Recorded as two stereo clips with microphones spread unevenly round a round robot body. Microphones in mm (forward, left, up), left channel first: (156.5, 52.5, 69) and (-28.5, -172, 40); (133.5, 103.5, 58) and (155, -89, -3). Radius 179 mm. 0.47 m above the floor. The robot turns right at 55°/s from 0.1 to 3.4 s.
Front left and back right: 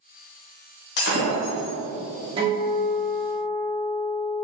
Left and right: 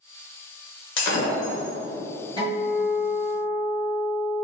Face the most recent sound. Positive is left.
turn(degrees=-125)